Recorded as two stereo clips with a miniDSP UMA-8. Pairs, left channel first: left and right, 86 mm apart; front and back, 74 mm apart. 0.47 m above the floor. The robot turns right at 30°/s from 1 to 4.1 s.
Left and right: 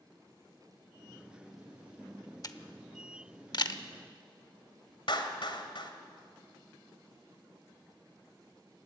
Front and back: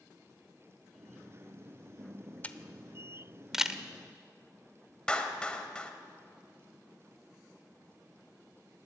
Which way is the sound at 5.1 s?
75° left.